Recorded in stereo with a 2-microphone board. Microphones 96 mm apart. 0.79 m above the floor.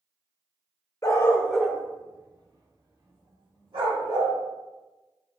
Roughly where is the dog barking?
Left.